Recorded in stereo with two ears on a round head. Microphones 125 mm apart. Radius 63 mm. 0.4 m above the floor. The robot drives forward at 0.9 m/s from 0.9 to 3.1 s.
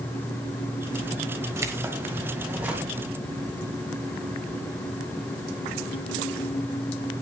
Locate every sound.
1.6 s keys jangling: 20° right (ahead or behind), 1.3 m; by 2.9 s 10° right (ahead or behind), 2.5 m